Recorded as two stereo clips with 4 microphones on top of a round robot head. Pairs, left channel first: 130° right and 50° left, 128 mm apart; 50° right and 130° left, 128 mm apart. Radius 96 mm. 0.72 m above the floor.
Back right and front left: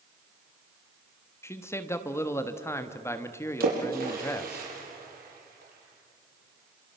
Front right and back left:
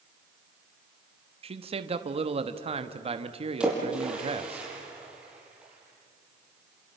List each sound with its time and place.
1.4 s a man speaking: 160° left, 1.3 m
3.6 s a splash: 50° left, 5 m